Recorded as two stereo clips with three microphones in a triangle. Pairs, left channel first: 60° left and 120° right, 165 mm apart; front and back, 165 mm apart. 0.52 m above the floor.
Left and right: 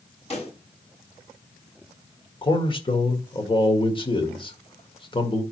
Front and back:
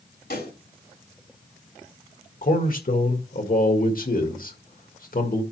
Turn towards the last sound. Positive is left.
turn(degrees=5)